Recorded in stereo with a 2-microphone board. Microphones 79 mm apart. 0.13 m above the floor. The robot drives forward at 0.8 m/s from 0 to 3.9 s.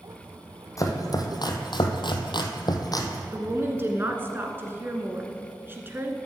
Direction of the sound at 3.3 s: 30° right (ahead or behind).